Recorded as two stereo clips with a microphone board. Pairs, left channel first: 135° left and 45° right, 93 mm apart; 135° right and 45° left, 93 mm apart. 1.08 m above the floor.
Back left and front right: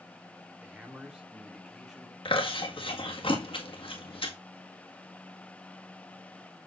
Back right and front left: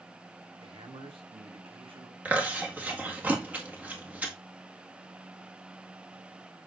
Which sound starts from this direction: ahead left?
A man speaking, at 0.6 s.